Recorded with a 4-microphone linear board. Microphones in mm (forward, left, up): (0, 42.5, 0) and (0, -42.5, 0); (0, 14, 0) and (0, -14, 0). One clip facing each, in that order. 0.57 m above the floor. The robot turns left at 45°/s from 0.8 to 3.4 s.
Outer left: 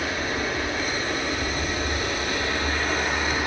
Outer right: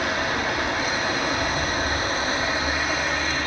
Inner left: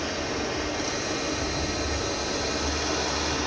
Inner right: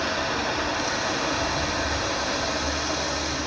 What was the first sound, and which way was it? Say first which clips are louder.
Running water: outer right 3 dB, inner right 4 dB; 80° right.